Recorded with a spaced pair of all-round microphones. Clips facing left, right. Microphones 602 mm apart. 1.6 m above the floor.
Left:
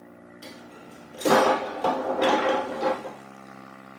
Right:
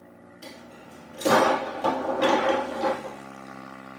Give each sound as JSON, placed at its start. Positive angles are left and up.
{"t": 0.4, "sound": "a dropped coin", "side_deg": 0, "distance_m": 1.8}